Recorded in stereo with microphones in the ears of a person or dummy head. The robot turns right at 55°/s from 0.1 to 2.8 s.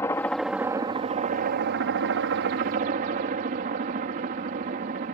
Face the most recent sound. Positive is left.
turn(degrees=-50)